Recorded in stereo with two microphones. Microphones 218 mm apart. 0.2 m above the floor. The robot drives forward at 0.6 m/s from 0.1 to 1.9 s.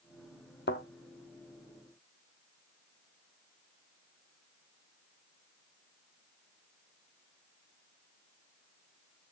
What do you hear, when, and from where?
0.7 s a thud: 55° left (ahead or behind), 1.5 m; by 0.8 s 60° left (ahead or behind), 1.4 m